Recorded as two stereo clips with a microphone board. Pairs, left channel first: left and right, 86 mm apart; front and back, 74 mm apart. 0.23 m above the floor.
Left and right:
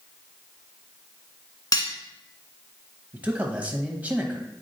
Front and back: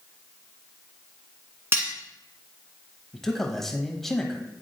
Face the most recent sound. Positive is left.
turn(degrees=-80)